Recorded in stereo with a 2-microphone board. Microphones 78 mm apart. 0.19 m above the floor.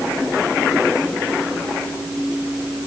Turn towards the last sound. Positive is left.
No sound to turn to.